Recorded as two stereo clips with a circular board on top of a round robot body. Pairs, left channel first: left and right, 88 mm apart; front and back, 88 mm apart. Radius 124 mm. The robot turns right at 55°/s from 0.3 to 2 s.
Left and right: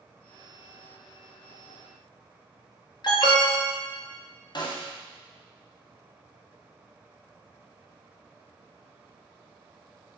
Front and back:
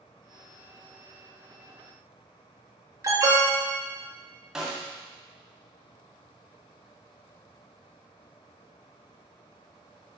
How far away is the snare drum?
About 1.8 m.